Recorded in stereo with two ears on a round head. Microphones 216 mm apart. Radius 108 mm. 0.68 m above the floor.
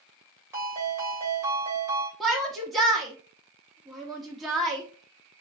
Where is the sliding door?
No sliding door in this recording.